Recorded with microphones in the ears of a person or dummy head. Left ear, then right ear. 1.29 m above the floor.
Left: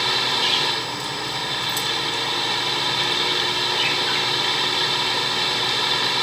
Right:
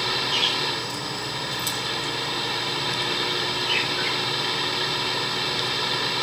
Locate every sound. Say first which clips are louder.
0.0 s a fan: left 3 dB; 15° left (ahead or behind)